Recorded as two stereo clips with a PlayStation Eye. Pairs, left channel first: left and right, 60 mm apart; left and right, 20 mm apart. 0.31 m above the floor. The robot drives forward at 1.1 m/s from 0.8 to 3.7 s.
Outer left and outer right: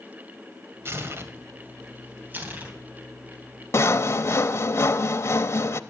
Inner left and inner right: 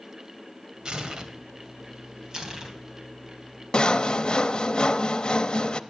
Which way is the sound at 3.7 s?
45° left (ahead or behind).